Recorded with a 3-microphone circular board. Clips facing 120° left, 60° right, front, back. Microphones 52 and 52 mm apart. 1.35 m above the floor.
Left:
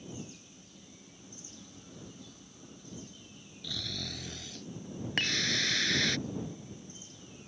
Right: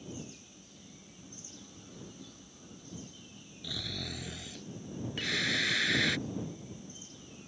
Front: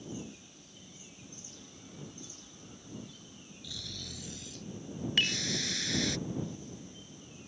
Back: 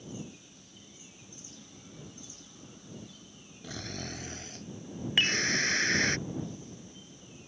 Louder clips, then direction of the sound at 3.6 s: Even, back 7 dB; 140° right.